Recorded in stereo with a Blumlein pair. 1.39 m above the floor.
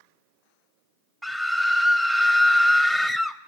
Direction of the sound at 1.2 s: 5° right.